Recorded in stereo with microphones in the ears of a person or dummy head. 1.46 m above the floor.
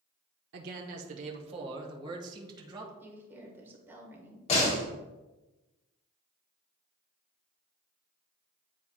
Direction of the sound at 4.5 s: 35° left (ahead or behind).